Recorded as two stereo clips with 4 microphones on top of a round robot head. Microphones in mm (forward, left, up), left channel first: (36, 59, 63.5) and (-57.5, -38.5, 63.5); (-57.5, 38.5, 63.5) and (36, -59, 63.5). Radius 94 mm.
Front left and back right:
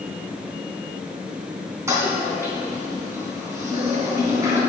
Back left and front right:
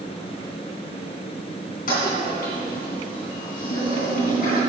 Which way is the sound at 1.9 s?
155° left.